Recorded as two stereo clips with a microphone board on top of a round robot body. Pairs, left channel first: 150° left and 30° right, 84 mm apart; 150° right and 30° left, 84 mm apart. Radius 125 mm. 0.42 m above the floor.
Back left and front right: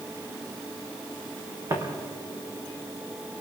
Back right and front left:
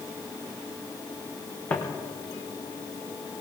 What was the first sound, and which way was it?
Footsteps, 80° right.